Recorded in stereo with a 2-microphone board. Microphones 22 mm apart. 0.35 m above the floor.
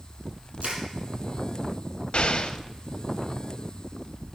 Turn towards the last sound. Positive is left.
turn(degrees=60)  # may be behind; listen again after turning